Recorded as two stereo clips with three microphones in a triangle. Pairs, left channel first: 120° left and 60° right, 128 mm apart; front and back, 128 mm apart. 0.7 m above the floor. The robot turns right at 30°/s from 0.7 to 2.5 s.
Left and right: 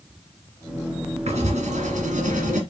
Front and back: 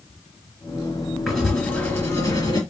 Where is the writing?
95° right, 2 m; by 2.6 s 55° right, 2 m.